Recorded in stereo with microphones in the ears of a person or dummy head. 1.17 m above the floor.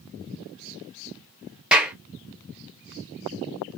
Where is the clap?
5° right (ahead or behind), 0.6 m.